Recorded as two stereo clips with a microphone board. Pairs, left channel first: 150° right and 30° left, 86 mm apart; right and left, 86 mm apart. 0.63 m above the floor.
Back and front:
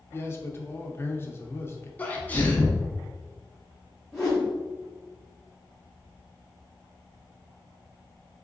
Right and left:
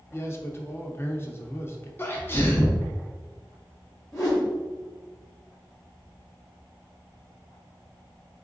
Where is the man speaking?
120° right, 0.6 m.